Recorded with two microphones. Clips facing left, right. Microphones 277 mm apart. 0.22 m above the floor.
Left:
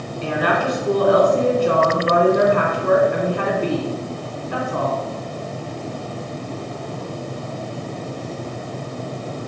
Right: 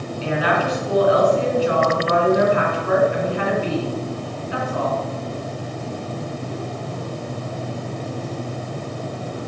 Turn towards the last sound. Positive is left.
turn(degrees=55)  # may be behind; listen again after turning